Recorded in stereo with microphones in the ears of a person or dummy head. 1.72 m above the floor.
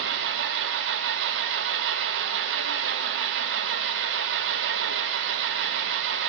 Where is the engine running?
65° right (ahead or behind), 0.8 m.